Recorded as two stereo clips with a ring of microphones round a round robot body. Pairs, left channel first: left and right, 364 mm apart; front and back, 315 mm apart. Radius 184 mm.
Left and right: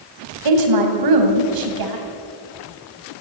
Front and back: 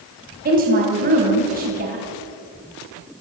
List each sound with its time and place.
0.5 s a woman speaking: 115° right, 3 m